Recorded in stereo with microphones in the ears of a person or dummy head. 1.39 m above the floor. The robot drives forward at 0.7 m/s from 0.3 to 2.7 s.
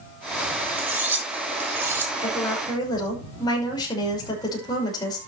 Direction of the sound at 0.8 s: 5° right (ahead or behind).